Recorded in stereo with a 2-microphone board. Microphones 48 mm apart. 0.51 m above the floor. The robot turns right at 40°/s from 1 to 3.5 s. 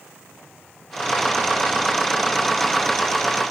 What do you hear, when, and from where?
Only background noise.